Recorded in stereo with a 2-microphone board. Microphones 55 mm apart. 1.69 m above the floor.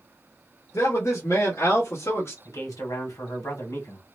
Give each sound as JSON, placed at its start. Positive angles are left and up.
{"t": 0.7, "sound": "a man speaking", "side_deg": 70, "distance_m": 1.2}
{"t": 2.5, "sound": "a man speaking", "side_deg": 85, "distance_m": 1.8}